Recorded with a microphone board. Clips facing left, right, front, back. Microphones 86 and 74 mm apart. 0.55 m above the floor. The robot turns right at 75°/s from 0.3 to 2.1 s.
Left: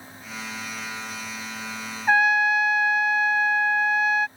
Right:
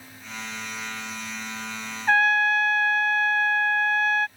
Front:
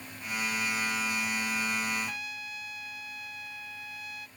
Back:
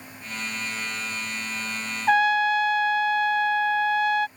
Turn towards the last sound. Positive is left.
turn(degrees=175)